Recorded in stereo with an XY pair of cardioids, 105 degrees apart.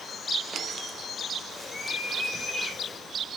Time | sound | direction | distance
1.5 | a bird | 15° left | 3 m